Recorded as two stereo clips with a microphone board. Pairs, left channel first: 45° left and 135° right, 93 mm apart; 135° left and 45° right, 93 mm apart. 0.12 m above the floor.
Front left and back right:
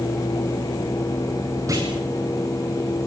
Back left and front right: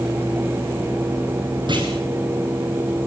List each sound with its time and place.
1.7 s a clunk: 80° right, 7 m